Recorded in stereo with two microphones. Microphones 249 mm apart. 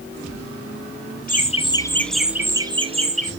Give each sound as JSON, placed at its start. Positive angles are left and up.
{"t": 1.3, "sound": "laughter", "side_deg": 35, "distance_m": 1.4}